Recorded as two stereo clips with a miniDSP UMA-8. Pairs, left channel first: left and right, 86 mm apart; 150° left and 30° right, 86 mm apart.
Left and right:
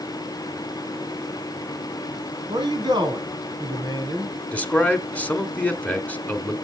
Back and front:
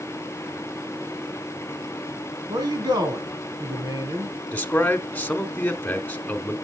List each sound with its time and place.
2.5 s a man speaking: 60° right, 3 m
4.5 s a man speaking: 125° left, 1.1 m